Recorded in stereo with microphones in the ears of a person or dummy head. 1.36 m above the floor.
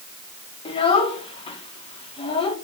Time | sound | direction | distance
0.7 | a child speaking | 30° left (ahead or behind) | 2.5 m